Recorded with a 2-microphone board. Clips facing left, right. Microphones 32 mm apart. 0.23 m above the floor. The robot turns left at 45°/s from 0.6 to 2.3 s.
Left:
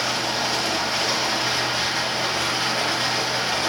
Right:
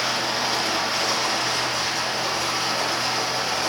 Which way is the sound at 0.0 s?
165° right.